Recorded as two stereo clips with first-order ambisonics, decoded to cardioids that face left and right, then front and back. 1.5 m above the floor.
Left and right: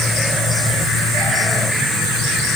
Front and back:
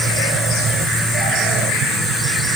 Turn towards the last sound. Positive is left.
No sound to turn to.